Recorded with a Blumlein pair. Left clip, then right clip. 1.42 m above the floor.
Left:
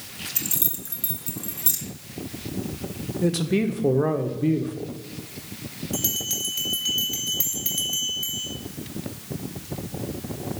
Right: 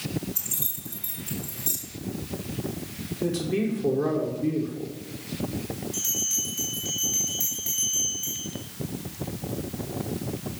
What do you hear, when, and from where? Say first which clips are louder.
0.3 s keys jangling: left 3 dB; 65° left, 1.8 m
3.2 s a man speaking: left 3 dB; 20° left, 1.1 m
5.9 s a bell: even; 55° left, 3 m